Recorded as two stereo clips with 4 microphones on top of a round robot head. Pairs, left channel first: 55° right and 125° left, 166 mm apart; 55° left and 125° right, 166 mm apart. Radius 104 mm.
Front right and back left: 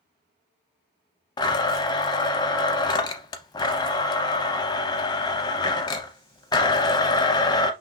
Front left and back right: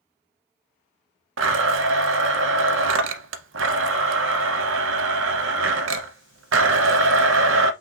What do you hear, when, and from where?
1.4 s a blender: 120° right, 0.5 m